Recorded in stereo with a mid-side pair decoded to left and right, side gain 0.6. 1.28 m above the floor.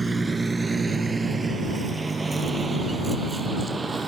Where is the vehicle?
15° right; by 4.1 s 20° right.